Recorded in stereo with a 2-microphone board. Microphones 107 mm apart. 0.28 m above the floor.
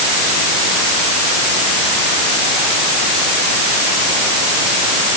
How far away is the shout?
No shout in this recording.